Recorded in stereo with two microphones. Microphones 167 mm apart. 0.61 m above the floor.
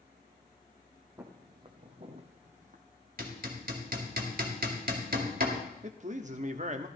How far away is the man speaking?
About 1.0 m.